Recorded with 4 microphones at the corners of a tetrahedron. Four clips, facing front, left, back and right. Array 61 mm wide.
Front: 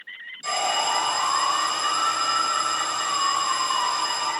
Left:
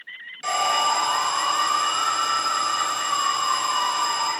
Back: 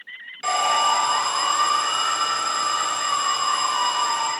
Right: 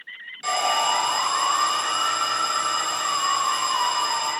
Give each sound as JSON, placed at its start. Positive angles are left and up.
{"t": 0.4, "sound": "an alarm", "azimuth_deg": 175, "distance_m": 2.0}